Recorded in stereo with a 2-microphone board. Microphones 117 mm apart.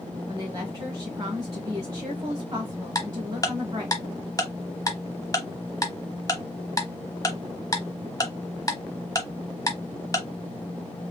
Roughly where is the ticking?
Left.